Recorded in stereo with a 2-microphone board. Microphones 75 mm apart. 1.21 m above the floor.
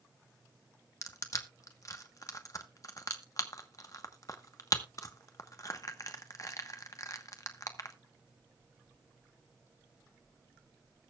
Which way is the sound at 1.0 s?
45° left (ahead or behind).